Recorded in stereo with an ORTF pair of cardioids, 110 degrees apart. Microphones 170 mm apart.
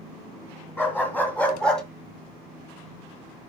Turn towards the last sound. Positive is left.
turn(degrees=5)